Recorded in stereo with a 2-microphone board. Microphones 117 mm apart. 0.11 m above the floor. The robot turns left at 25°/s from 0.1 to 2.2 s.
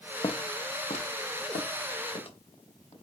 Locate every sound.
0.2 s footsteps: 35° left (ahead or behind), 0.6 m; by 2.9 s 50° left (ahead or behind), 2 m